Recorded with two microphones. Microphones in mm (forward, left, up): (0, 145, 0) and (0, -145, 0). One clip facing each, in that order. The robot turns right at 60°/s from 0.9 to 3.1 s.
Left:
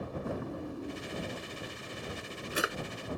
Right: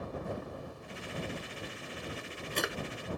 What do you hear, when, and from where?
0.2 s a drawer: 70° left (ahead or behind); by 2.8 s 5° right (ahead or behind)